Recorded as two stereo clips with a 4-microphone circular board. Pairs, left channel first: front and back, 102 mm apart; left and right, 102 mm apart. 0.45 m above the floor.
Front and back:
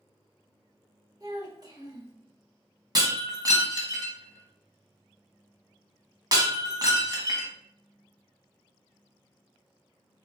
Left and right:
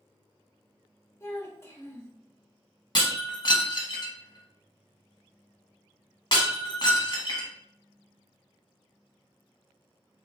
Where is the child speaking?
145° left, 1.3 m.